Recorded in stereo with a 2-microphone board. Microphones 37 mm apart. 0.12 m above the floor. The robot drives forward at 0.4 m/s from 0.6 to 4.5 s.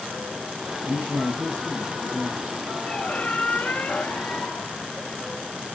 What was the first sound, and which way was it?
A man speaking, 75° right (ahead or behind).